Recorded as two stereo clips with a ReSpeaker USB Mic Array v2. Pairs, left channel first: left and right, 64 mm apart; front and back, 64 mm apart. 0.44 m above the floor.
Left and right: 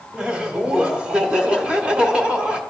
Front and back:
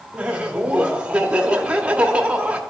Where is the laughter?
140° right, 0.9 m.